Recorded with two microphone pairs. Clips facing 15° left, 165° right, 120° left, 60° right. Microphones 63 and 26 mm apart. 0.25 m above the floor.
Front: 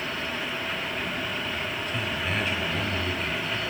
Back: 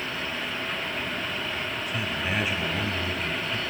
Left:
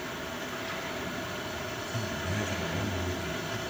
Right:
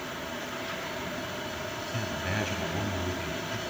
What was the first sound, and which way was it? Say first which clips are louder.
A man speaking: even, right 1 dB; 90° right.